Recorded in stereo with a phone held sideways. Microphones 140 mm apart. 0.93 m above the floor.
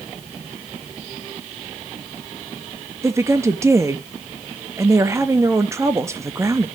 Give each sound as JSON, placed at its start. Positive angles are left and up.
{"t": 3.0, "sound": "a woman speaking", "side_deg": -20, "distance_m": 0.9}